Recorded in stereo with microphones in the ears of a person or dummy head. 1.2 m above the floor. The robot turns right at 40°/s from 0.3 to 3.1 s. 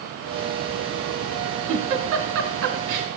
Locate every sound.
1.7 s a giggle: 35° right (ahead or behind), 1.5 m; by 3.1 s 50° right (ahead or behind), 1.5 m